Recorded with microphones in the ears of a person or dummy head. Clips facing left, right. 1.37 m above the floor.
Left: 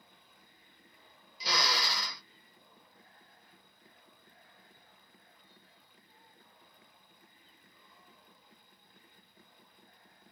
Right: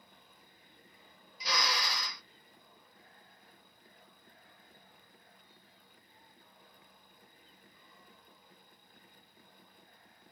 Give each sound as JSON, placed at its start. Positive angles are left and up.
{"t": 1.4, "sound": "a drill", "side_deg": 35, "distance_m": 0.8}